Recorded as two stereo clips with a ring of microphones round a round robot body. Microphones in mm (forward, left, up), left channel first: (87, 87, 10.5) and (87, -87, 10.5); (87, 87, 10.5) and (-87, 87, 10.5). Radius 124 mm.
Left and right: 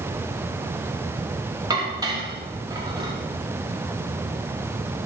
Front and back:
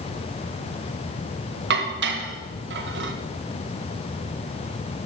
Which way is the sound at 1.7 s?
165° right.